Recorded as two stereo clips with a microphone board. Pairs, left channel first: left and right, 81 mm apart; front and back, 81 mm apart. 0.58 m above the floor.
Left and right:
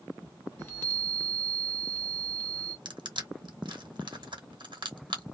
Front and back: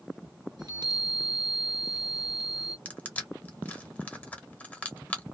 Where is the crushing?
70° right, 0.9 m.